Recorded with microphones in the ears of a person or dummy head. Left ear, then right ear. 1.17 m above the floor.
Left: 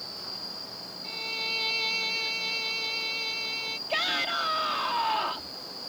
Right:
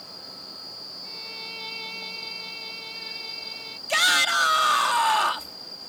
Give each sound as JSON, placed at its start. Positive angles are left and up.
{"t": 1.0, "sound": "a violin", "side_deg": 25}
{"t": 3.9, "sound": "a shout", "side_deg": -45}